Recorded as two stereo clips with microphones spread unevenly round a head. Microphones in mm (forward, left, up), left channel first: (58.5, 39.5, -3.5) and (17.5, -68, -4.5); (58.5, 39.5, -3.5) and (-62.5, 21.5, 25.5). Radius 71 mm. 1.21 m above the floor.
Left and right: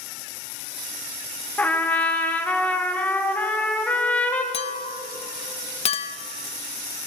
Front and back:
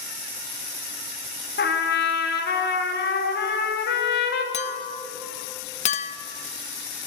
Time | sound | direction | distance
1.6 | a trumpet | 5° right | 1.2 m
4.5 | a clink | 45° left | 0.6 m